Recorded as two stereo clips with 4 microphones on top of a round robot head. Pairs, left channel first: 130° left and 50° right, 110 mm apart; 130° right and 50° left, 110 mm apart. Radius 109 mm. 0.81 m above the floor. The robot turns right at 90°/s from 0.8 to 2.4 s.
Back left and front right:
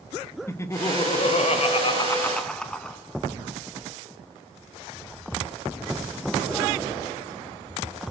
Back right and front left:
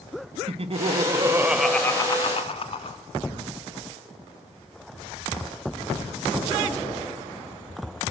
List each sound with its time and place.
0.5 s laughter: 65° left, 1.6 m; by 3.0 s 150° right, 1.6 m